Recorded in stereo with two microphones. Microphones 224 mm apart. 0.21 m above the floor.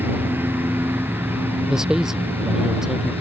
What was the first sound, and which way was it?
A lawn mower, 10° right (ahead or behind).